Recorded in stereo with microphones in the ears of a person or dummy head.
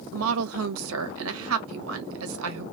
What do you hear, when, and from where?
0.1 s a woman speaking: 80° right, 0.9 m